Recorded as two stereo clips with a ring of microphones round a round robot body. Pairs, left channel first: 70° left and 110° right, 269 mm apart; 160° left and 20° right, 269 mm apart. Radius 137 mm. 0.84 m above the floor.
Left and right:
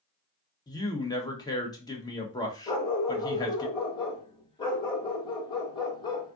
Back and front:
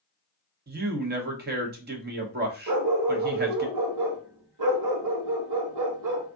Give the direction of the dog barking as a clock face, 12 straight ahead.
12 o'clock.